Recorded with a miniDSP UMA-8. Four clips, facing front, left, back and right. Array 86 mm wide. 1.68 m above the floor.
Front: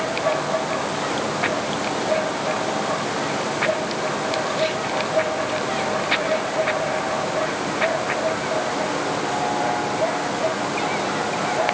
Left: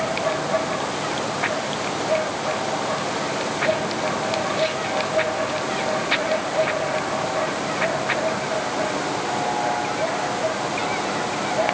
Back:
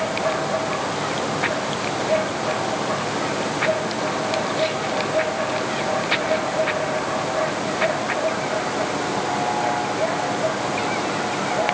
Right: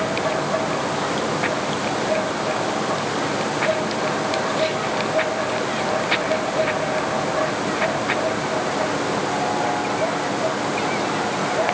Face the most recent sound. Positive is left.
No sound to turn to.